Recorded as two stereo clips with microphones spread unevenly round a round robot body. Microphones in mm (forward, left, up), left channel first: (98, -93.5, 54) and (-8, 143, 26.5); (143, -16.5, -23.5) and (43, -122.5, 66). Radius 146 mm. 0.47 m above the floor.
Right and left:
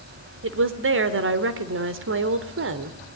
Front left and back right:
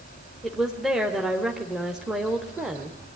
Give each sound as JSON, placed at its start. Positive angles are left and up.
{"t": 0.4, "sound": "a woman speaking", "azimuth_deg": 110, "distance_m": 1.6}